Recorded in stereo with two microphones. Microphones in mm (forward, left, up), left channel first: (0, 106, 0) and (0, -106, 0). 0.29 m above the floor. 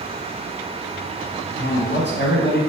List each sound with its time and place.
1.6 s a man speaking: 55° left (ahead or behind), 2.5 m